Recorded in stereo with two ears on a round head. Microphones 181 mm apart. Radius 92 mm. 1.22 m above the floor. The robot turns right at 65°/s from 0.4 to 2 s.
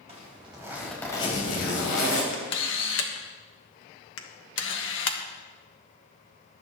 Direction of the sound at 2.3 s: 70° left (ahead or behind).